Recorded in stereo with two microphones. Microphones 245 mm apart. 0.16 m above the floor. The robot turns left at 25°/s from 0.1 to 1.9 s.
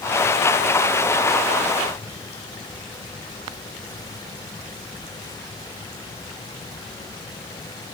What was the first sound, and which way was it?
Only background noise.